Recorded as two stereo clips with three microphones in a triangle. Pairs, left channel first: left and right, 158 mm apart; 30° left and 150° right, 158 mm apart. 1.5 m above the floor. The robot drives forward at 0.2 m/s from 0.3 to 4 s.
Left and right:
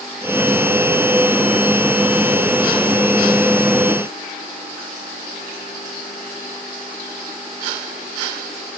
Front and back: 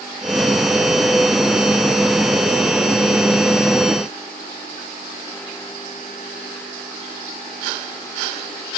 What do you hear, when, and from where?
Only background noise.